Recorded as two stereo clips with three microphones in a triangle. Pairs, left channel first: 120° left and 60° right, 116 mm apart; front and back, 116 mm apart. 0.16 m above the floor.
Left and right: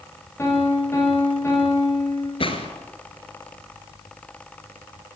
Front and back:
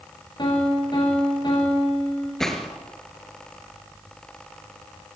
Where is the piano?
50° left, 8.5 m.